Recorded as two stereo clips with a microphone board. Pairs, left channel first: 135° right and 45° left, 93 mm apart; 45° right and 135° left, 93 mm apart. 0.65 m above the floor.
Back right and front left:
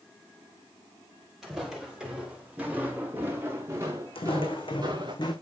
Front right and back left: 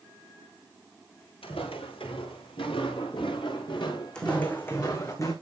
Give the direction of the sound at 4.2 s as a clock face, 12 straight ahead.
4 o'clock.